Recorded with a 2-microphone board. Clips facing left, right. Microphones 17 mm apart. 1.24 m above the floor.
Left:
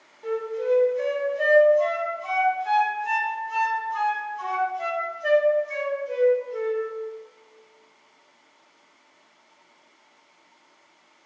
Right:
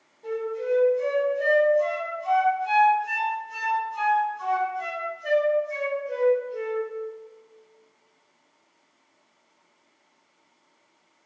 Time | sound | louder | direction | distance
0.2 | a flute | left 2 dB | 45° left (ahead or behind) | 1.1 m